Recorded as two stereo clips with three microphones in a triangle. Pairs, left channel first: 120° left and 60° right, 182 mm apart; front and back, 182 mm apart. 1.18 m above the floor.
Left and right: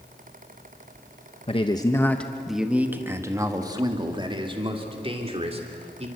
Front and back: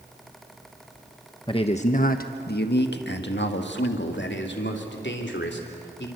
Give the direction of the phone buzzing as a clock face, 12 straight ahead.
I don't hear a phone buzzing.